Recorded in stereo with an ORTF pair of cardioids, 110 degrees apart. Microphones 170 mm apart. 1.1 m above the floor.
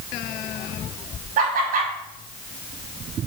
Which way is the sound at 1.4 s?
55° right.